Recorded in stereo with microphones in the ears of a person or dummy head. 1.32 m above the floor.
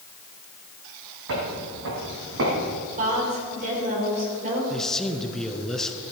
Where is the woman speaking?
45° right (ahead or behind), 5 m.